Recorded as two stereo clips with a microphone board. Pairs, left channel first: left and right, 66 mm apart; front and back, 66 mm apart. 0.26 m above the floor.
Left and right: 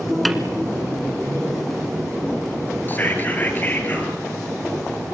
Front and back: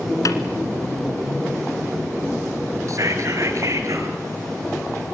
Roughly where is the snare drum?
Ahead.